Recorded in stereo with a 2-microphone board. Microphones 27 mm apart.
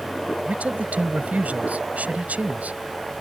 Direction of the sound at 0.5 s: 80° right.